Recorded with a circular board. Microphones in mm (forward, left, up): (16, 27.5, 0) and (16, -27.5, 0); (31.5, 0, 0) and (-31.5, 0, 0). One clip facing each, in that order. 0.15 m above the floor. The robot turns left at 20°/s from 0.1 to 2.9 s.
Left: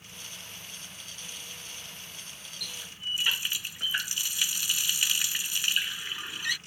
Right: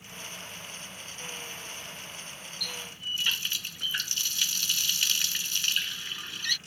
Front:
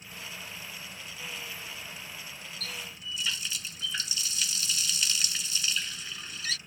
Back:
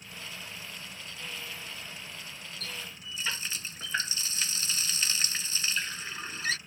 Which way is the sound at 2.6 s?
160° left.